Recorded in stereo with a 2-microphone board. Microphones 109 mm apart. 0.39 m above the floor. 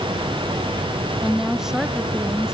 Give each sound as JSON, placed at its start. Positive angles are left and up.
{"t": 1.2, "sound": "a woman speaking", "side_deg": -5}